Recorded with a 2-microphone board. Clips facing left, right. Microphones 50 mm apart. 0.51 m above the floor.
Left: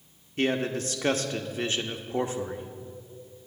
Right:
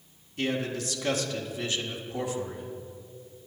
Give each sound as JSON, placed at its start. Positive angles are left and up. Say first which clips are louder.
{"t": 0.4, "sound": "a man speaking", "louder": "left 3 dB", "side_deg": 40, "distance_m": 1.1}